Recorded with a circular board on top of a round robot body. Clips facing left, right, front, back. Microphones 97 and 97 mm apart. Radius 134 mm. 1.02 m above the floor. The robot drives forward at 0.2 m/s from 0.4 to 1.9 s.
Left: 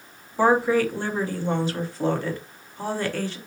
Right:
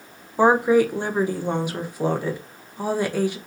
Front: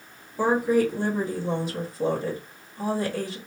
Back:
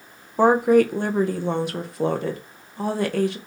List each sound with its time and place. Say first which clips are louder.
0.4 s a woman speaking: right 3 dB, back 6 dB; 160° right, 0.8 m; by 3.4 s 165° right, 1.0 m